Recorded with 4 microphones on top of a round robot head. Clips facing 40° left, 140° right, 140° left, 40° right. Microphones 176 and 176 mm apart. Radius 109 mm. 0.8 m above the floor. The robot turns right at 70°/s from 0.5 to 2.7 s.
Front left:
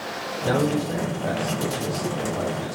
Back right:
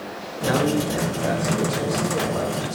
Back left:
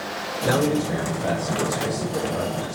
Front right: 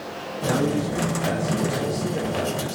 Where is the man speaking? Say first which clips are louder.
Back right 1 dB, back left 2 dB; 100° left, 4 m; by 2.7 s 105° right, 4 m.